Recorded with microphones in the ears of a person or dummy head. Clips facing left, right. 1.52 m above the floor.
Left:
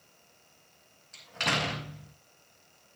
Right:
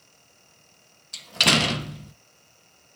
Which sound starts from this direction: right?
A door slam, at 1.1 s.